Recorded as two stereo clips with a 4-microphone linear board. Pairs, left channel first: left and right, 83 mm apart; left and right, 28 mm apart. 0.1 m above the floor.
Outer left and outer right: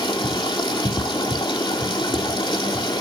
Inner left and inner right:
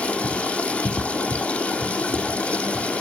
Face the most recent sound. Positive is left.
turn(degrees=60)  # may be behind; listen again after turning